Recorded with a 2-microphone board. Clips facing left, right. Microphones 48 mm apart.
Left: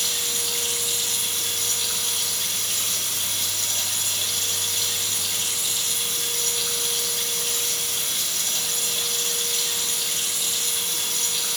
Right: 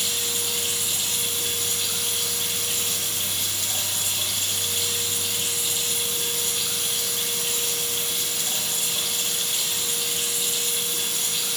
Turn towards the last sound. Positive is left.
turn(degrees=-25)  # may be behind; listen again after turning